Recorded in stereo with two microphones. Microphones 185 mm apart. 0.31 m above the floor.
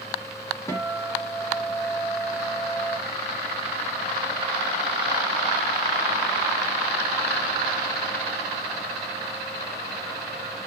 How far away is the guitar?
About 0.9 m.